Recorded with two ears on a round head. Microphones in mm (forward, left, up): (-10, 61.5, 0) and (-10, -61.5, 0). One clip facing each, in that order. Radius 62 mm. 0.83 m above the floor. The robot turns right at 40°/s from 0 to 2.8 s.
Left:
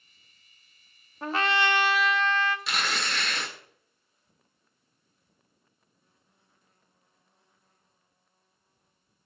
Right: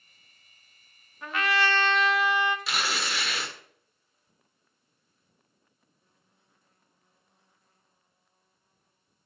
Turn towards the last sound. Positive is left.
turn(degrees=-5)  # may be behind; listen again after turning